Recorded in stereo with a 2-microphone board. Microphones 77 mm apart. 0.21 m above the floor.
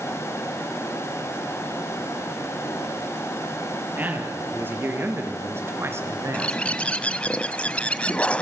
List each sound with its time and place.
4.0 s a man speaking: 25° right (ahead or behind), 5 m; by 6.6 s 40° right (ahead or behind), 2.5 m
6.3 s a bird: 15° left (ahead or behind), 0.8 m